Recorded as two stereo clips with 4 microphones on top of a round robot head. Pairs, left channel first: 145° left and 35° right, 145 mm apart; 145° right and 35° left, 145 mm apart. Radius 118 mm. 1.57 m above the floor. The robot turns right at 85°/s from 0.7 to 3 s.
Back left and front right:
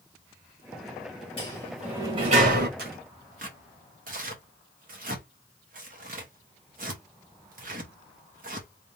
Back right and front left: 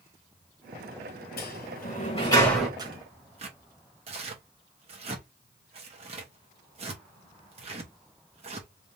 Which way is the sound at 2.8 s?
25° right.